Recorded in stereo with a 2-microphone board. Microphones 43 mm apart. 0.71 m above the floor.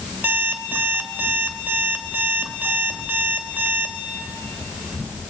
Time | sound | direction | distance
0.2 | an alarm clock | 55° right (ahead or behind) | 1.7 m